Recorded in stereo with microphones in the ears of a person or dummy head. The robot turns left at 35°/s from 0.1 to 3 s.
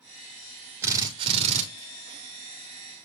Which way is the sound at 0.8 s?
10° right (ahead or behind).